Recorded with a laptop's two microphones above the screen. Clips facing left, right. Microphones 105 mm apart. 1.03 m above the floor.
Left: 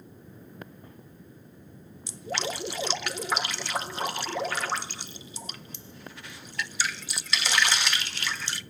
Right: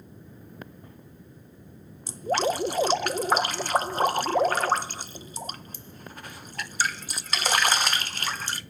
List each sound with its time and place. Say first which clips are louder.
2.1 s dripping: right 8 dB; 45° right (ahead or behind), 0.6 m